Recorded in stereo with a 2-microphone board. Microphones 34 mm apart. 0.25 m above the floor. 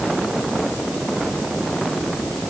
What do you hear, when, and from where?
Only background noise.